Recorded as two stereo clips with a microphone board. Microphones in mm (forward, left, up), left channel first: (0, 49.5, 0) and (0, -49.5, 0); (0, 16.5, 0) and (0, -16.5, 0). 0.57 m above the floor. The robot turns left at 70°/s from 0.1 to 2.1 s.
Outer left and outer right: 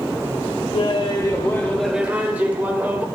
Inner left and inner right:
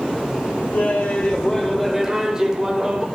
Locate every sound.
0.7 s laughter: 80° left, 2 m; by 3.0 s 15° right, 2 m